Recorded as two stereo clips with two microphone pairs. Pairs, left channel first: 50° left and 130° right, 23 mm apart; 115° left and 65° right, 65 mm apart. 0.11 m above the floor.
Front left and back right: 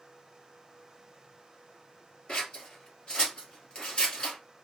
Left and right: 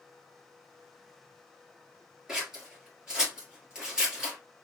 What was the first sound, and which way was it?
Scissors, 10° left.